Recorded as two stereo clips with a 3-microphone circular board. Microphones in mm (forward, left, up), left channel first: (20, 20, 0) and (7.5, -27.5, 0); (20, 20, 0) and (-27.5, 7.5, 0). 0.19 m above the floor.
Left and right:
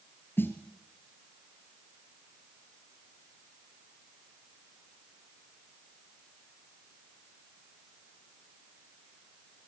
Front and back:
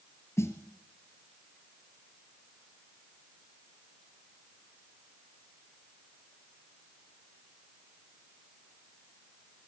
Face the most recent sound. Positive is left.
turn(degrees=35)